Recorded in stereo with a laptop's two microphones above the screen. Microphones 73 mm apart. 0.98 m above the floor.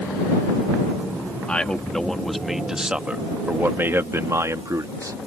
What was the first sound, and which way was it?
A man speaking, 15° left (ahead or behind).